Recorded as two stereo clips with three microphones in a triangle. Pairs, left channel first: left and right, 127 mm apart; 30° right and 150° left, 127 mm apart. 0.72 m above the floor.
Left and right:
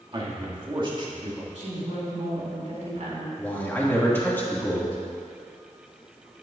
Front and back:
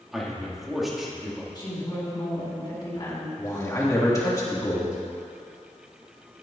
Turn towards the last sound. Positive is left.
turn(degrees=20)